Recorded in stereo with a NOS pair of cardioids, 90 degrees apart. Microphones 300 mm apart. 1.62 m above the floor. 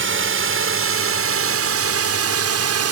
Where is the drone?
45° right; by 2.9 s 55° right.